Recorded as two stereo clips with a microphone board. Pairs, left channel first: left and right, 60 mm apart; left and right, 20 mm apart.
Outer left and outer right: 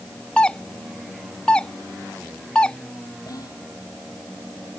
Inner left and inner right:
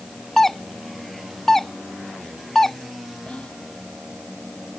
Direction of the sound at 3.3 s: 70° left (ahead or behind).